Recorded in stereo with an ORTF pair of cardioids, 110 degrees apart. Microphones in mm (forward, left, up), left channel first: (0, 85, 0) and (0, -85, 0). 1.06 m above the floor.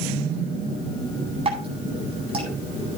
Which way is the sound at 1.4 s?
35° right.